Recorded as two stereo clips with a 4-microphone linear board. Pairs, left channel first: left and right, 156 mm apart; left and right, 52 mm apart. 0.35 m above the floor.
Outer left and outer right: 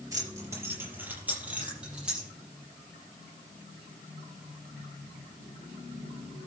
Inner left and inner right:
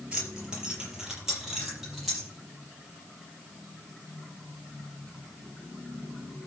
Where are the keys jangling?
20° right (ahead or behind), 5 m; by 2.3 s 5° right (ahead or behind), 7.5 m.